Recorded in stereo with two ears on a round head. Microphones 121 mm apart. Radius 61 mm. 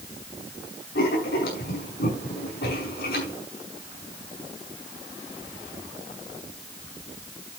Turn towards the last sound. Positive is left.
turn(degrees=80)